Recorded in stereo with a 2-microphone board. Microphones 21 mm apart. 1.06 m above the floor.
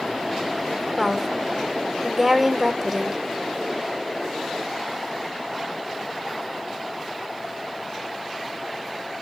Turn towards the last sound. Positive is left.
turn(degrees=0)  # may be behind; listen again after turning